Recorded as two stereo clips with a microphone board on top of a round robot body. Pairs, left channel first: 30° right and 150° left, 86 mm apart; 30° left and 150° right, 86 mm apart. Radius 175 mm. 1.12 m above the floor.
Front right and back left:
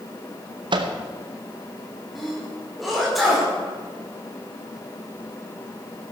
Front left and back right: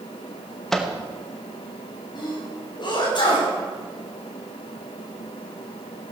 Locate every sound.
0.7 s a microwave: 115° left, 1.1 m
2.1 s a sneeze: 60° left, 5 m